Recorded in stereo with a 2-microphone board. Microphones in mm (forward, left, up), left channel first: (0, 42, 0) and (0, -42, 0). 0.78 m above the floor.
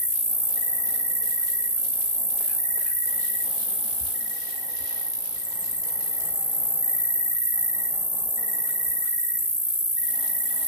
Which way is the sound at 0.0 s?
60° right (ahead or behind).